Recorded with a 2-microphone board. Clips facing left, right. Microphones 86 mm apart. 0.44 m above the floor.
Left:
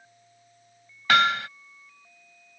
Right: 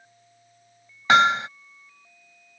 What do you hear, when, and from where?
1.1 s hammering: 25° right (ahead or behind)